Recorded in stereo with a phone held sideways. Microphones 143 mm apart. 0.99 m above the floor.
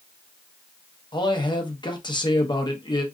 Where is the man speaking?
30° left (ahead or behind), 0.8 m.